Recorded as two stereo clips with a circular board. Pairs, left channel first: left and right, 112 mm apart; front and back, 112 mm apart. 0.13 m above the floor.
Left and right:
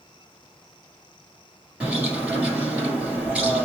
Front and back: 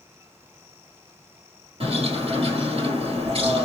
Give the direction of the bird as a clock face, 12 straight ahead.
6 o'clock.